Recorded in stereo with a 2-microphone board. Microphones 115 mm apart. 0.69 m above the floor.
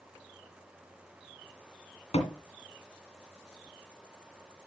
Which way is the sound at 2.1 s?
60° left (ahead or behind).